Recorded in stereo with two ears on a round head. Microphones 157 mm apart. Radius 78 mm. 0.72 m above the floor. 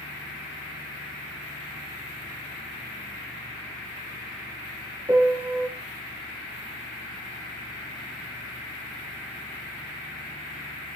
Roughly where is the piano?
Centre.